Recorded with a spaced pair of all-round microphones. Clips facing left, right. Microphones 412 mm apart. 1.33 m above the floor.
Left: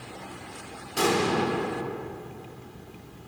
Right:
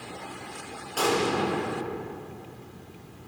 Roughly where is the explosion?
Left.